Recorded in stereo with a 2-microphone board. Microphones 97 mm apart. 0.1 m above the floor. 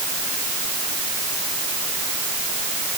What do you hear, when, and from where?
Only background noise.